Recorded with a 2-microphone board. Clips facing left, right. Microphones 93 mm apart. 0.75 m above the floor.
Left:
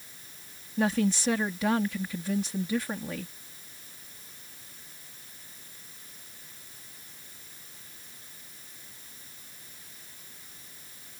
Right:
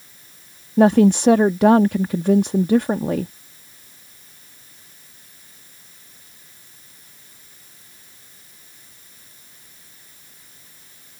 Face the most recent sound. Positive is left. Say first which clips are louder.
# right 13 dB
turn(degrees=-60)  # may be behind; listen again after turning